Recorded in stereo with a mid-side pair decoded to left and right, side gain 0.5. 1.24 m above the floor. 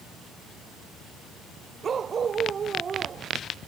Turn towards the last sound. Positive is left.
turn(degrees=-40)